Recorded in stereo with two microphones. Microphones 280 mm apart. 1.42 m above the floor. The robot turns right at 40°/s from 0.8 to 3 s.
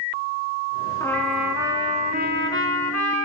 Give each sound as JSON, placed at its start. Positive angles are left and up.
{"t": 1.0, "sound": "a trumpet", "azimuth_deg": 170, "distance_m": 3.5}